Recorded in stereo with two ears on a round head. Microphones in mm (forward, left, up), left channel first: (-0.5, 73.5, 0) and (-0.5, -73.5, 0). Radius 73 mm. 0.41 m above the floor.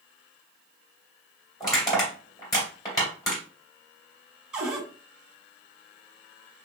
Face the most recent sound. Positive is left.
turn(degrees=-5)  # may be behind; listen again after turning